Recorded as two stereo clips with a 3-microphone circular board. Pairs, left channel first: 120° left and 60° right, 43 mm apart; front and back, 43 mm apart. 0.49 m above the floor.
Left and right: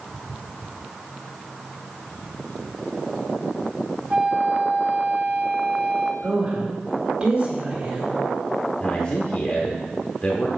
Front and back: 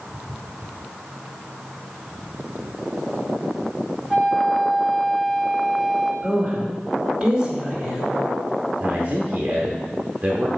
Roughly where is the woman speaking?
Behind right.